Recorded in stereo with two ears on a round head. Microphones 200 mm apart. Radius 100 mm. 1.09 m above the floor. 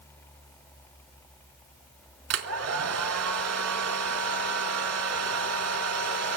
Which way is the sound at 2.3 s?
65° right (ahead or behind).